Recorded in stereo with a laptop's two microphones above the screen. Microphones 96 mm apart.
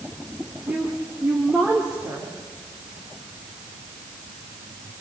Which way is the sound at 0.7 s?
10° right (ahead or behind).